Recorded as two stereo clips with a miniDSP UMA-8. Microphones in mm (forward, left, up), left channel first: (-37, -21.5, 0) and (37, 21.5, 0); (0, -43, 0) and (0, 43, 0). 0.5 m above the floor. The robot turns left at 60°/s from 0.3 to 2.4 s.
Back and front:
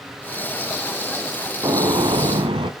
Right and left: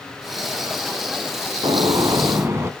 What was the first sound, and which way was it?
A gunshot, 75° left.